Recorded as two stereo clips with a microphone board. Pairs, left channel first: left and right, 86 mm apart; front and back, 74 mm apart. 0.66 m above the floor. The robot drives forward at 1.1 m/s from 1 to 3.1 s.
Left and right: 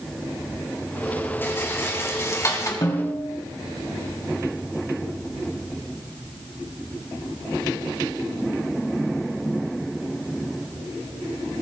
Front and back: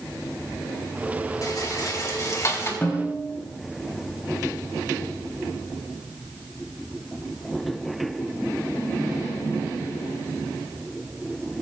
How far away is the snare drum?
About 3.5 m.